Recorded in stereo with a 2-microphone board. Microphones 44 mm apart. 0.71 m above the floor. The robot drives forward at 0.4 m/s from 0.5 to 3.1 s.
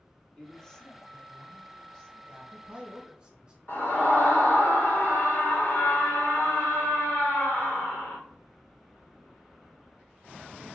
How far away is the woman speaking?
About 0.9 m.